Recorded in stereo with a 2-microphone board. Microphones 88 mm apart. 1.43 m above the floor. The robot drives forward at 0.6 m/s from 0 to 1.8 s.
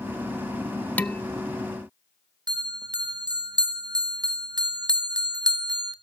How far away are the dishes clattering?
About 0.6 m.